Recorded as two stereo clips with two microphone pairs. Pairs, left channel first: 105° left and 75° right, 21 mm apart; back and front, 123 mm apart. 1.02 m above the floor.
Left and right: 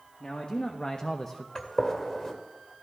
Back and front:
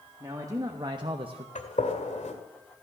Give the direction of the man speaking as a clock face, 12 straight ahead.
10 o'clock.